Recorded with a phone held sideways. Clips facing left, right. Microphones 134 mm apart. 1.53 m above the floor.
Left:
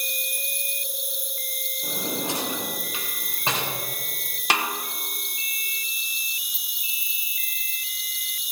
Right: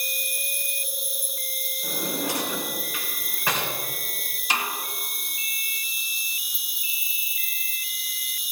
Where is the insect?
5° right (ahead or behind), 3 m.